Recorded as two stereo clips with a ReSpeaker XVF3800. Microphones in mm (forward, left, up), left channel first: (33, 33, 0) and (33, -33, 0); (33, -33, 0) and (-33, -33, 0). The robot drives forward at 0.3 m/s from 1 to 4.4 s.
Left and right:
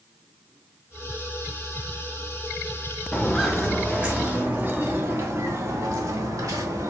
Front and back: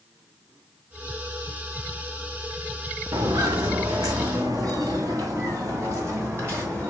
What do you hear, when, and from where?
3.1 s footsteps: 170° left, 2.0 m; by 6.9 s 130° right, 4.5 m